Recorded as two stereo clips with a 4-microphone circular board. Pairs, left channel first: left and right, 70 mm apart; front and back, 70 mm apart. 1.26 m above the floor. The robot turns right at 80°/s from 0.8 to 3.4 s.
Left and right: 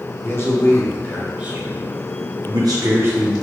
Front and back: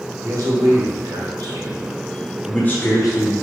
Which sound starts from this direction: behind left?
A man speaking, at 0.2 s.